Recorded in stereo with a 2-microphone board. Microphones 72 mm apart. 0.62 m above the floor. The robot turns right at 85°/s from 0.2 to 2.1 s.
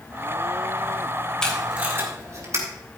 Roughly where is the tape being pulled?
Centre.